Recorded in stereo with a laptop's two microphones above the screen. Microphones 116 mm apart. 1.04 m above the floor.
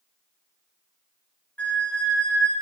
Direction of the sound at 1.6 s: 10° left (ahead or behind).